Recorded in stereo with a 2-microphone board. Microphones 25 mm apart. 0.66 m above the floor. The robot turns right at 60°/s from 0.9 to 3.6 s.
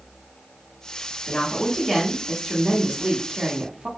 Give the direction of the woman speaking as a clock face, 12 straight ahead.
8 o'clock.